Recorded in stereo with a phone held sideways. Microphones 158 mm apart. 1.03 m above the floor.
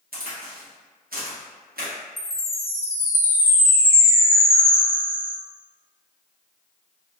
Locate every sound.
0.1 s a crack: 75° right (ahead or behind), 1.0 m
2.2 s a chime: 80° left, 0.7 m